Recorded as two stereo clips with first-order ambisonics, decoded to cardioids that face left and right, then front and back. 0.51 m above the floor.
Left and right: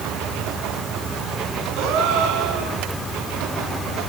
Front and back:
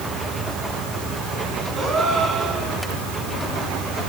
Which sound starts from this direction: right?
A gasp, at 1.8 s.